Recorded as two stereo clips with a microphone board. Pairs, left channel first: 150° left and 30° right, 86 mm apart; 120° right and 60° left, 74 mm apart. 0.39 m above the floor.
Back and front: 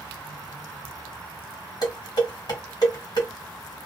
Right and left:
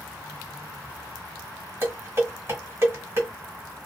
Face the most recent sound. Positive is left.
turn(degrees=115)